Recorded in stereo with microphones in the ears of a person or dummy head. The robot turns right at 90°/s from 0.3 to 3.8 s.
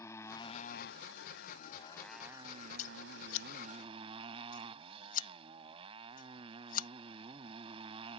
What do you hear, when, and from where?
0.0 s a motorcycle: 20° left; by 8.2 s 25° right
2.8 s scissors: 45° left (ahead or behind)